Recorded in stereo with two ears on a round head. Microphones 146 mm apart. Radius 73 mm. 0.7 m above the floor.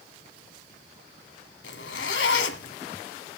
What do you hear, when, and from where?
1.6 s a zipper: 80° left, 1.5 m